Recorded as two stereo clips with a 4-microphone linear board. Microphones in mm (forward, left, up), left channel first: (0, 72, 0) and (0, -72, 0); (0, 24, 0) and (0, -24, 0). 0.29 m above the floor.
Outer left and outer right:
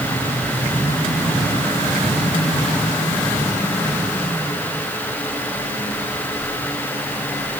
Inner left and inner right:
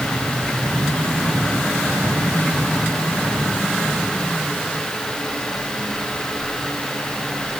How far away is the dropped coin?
I don't hear a dropped coin.